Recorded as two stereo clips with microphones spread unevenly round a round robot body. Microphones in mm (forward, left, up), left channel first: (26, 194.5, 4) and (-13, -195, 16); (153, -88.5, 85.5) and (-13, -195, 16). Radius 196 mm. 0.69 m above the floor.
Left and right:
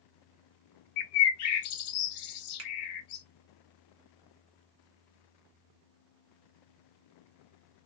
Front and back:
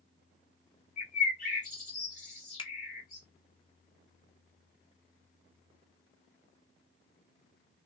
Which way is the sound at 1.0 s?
100° left.